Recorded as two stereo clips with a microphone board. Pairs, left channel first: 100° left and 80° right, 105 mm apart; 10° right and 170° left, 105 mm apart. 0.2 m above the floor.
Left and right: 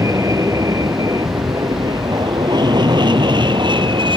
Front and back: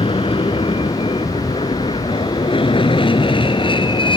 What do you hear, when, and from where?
0.0 s an aircraft: 25° right; by 4.2 s 45° right